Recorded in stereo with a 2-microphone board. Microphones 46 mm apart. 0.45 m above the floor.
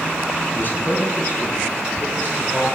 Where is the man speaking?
40° left (ahead or behind), 5.5 m; by 2.6 s 35° left (ahead or behind), 6.5 m.